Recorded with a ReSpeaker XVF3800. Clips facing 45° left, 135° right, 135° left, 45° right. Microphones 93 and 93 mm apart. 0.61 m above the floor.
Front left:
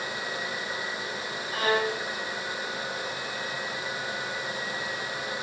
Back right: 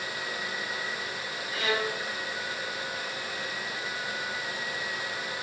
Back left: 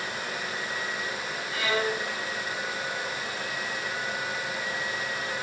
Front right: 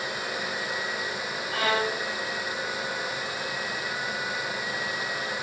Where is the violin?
5° right, 2 m.